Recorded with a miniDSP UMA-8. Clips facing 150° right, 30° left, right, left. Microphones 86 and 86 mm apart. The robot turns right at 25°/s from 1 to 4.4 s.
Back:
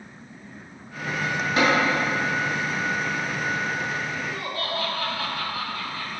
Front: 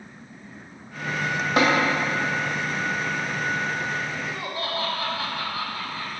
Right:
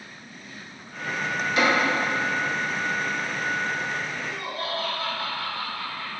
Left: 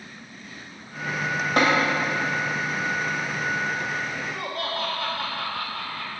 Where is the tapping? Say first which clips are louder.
Front 1 dB, left 2 dB; 50° left, 2 m; by 1.7 s 55° left, 2 m.